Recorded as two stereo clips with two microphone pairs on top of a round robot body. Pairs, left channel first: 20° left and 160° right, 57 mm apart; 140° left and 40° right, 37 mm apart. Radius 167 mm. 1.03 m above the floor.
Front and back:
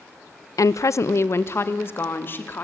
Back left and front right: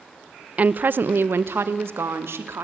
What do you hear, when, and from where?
0.6 s a woman speaking: 15° left, 0.8 m; by 2.6 s 35° right, 3 m